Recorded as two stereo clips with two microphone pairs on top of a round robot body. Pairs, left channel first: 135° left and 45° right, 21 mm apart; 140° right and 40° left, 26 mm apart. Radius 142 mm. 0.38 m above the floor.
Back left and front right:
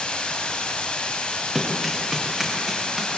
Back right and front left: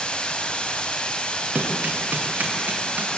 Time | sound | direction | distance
0.0 | running water | 175° left | 1.7 m
1.6 | running footsteps | 50° left | 4 m